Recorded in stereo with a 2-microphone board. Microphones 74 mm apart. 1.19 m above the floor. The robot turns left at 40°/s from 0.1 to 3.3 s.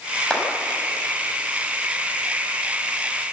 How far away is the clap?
About 6 m.